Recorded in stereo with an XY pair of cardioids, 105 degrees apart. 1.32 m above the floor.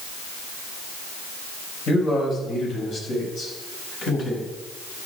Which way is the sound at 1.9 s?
60° left.